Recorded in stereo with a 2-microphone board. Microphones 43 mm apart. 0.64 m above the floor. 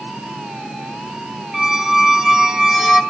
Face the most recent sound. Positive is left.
turn(degrees=-15)  # may be behind; listen again after turning